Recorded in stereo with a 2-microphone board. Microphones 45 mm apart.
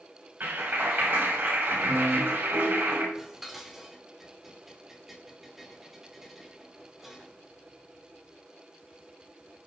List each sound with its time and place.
0.4 s a clap: 50° right (ahead or behind), 7 m
3.1 s dishes clattering: 5° right (ahead or behind), 2.5 m